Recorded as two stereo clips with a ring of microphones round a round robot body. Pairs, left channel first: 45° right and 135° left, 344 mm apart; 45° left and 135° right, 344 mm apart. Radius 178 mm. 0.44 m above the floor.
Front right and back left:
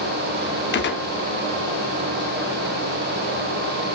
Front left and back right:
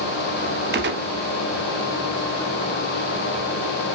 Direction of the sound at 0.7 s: 90° right.